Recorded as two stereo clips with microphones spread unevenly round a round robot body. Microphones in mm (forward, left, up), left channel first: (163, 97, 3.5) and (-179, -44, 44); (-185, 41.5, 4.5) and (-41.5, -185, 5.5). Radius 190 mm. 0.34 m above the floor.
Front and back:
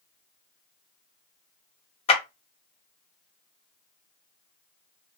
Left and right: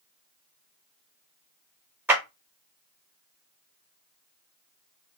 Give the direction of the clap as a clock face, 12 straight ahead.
12 o'clock.